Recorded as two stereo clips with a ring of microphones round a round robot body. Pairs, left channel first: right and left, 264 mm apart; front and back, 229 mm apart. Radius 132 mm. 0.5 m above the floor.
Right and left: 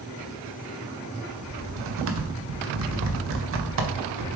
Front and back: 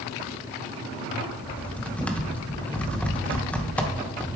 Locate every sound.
1.4 s typing on a keyboard: 85° left, 1.0 m